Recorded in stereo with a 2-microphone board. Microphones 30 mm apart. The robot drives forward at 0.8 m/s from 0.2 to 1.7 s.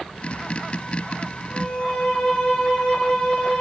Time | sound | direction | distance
1.4 | a violin | 30° left (ahead or behind) | 2.5 m